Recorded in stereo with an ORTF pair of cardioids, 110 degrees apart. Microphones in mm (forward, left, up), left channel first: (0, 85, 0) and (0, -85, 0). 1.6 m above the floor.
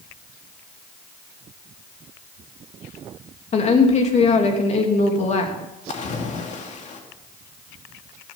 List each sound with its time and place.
3.5 s a woman speaking: 40° left, 3 m
5.9 s a splash: 45° left, 2.5 m